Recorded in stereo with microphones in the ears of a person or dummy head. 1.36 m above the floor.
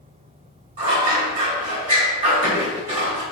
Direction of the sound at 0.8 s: 40° right (ahead or behind).